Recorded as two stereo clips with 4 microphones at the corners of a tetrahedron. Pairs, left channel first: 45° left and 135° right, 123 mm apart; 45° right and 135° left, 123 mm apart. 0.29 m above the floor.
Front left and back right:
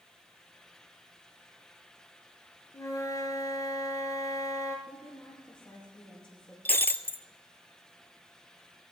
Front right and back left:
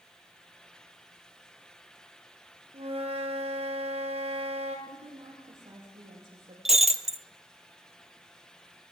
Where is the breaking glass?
120° left, 0.7 m.